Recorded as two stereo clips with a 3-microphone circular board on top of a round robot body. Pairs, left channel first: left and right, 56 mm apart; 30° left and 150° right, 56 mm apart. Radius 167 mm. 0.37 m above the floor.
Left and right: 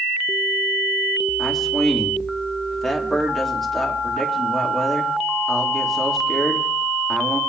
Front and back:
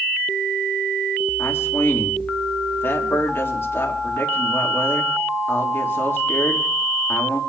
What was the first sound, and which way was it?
A man speaking, 5° left.